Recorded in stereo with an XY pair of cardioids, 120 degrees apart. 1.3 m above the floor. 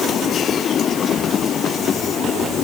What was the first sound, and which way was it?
Only background noise.